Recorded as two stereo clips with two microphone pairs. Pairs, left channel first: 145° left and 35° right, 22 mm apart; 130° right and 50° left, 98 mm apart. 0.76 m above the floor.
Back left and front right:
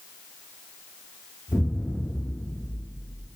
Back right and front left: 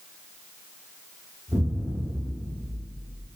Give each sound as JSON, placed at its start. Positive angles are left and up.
{"t": 1.5, "sound": "an explosion", "azimuth_deg": 115, "distance_m": 1.0}